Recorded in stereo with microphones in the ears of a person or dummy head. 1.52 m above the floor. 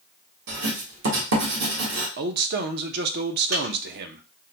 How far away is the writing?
About 1.6 m.